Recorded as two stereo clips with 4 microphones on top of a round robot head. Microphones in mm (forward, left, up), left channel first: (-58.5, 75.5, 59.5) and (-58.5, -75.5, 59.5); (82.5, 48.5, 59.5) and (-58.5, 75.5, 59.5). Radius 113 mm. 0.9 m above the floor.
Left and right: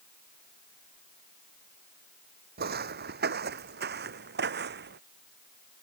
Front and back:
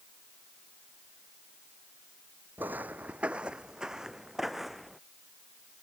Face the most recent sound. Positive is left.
turn(degrees=-100)